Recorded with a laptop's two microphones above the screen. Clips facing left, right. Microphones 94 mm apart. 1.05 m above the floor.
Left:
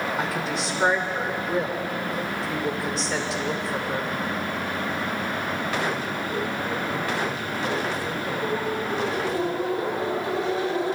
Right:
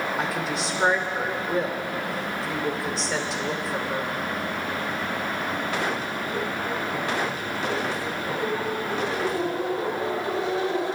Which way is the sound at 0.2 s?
Centre (ahead or behind).